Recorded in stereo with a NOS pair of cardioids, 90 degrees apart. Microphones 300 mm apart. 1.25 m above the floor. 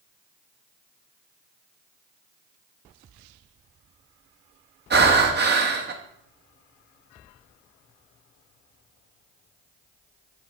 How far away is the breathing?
About 1.5 m.